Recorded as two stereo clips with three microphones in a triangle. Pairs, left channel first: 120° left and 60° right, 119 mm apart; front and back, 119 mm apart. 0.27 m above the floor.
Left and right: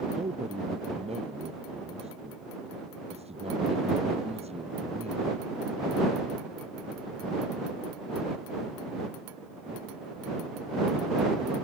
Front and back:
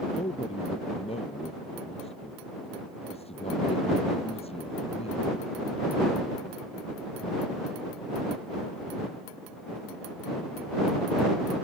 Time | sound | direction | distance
0.1 | a man speaking | 30° right | ?